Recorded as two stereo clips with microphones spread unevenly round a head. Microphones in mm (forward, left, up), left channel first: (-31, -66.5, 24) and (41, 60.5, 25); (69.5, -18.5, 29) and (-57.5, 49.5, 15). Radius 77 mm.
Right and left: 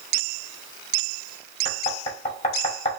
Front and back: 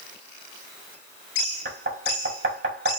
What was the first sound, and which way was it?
Knocking, 170° right.